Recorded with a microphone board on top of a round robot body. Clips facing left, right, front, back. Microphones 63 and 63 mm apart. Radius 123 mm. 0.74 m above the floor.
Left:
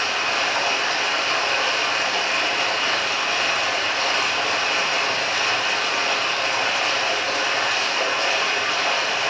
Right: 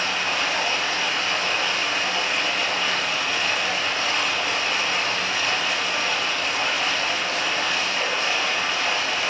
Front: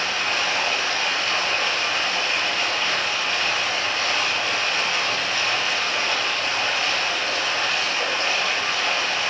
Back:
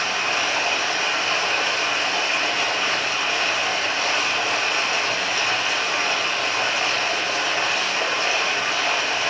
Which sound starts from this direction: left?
Running water, at 0.0 s.